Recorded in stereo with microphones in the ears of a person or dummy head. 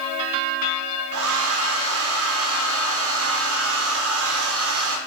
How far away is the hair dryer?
About 1.2 m.